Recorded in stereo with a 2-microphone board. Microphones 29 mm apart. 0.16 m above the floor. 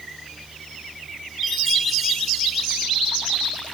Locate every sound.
1.4 s a chime: 5° right (ahead or behind), 4.5 m